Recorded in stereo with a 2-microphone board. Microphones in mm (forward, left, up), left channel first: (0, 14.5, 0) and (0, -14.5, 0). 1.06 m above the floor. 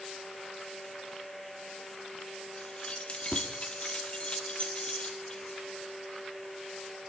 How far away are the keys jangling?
About 1.5 m.